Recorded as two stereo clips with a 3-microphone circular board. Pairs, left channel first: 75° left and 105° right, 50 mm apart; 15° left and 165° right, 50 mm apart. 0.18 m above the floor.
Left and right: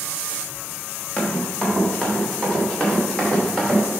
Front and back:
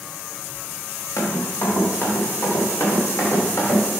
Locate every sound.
1.2 s running footsteps: straight ahead, 4 m; by 3.8 s 10° right, 5.5 m